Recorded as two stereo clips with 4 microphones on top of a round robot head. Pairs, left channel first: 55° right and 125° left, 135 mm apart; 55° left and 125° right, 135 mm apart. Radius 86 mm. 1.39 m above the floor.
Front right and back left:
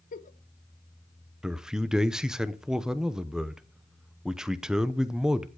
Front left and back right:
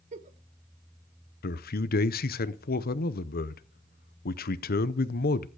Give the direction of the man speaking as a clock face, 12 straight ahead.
11 o'clock.